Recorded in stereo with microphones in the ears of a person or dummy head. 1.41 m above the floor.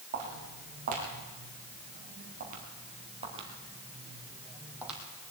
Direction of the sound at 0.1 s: 45° right (ahead or behind).